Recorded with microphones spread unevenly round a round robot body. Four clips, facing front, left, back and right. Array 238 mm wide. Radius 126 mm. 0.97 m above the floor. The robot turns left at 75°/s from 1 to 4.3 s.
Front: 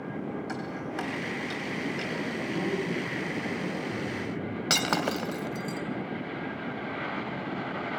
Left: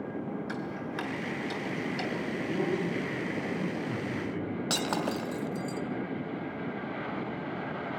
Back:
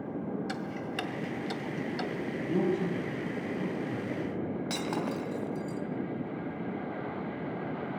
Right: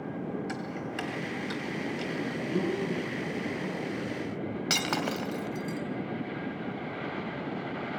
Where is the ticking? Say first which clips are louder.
Even, front 1 dB; 160° right, 2 m; by 2.1 s 115° left, 2 m.